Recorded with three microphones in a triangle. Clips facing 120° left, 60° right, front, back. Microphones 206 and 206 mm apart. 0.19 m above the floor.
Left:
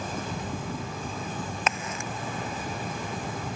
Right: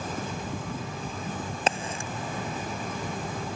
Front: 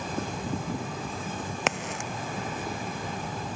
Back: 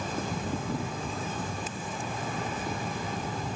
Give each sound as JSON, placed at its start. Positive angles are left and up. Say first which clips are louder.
{"t": 1.7, "sound": "a crack", "louder": "right 4 dB, front 4 dB", "azimuth_deg": 0}